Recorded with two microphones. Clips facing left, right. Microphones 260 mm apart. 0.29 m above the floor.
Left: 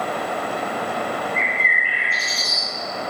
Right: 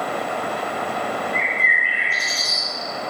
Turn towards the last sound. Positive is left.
turn(degrees=-55)  # may be behind; listen again after turning